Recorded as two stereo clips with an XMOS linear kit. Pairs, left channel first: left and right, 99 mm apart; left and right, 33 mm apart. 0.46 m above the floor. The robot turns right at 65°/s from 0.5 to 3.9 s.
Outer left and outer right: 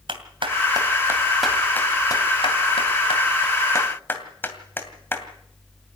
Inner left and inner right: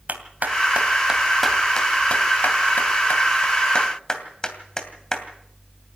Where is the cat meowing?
I don't hear a cat meowing.